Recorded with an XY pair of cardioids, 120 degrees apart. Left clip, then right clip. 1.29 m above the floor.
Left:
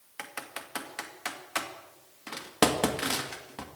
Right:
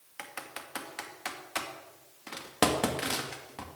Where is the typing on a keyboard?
10° left, 1.9 m.